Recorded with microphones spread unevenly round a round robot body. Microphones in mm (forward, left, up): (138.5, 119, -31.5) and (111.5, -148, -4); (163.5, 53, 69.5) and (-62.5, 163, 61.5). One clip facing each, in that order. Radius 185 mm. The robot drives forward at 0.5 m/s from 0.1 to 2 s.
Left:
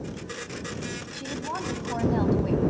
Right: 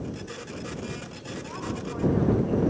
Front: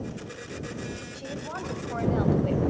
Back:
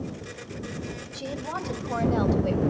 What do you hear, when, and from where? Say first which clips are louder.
1.1 s a woman speaking: left 3 dB, back 2 dB; 115° left, 3 m; by 2.6 s 125° left, 3 m